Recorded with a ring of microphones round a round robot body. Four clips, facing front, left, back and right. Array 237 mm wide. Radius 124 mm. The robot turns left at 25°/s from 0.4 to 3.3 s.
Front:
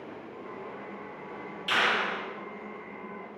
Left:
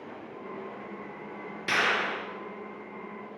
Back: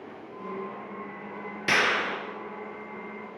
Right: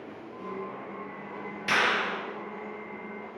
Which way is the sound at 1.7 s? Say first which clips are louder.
Right 1 dB, back 2 dB; straight behind.